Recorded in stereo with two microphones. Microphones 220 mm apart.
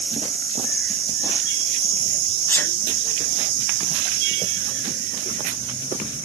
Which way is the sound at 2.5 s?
10° left (ahead or behind).